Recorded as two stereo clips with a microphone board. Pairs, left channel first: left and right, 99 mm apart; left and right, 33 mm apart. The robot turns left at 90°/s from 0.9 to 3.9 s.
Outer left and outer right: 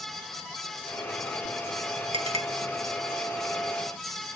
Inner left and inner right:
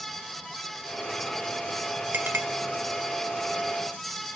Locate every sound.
2.1 s a clink: 60° right (ahead or behind), 0.9 m; by 2.5 s 70° right (ahead or behind), 0.9 m